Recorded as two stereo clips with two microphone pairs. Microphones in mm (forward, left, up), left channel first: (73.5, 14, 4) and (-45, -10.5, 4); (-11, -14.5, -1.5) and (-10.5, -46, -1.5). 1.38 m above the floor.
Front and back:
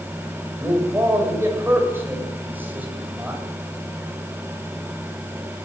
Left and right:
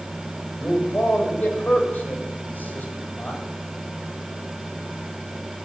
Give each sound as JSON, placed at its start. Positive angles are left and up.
{"t": 0.6, "sound": "a man speaking", "azimuth_deg": 125, "distance_m": 8.0}